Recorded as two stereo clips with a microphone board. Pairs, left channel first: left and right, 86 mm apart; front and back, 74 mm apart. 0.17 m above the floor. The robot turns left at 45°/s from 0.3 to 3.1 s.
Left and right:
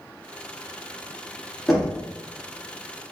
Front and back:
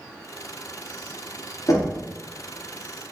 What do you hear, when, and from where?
1.7 s knocking: 5° left, 1.6 m; by 2.0 s 10° right, 1.6 m